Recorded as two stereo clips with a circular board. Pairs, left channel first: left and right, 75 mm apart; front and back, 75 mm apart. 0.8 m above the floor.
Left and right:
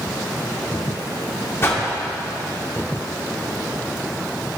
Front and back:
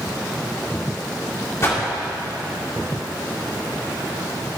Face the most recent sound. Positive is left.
turn(degrees=40)